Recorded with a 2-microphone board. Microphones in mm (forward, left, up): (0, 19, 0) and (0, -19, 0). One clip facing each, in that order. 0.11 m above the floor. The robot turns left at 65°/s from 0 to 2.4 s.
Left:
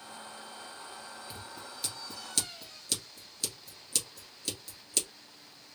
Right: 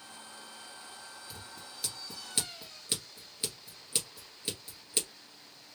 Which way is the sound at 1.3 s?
25° left (ahead or behind).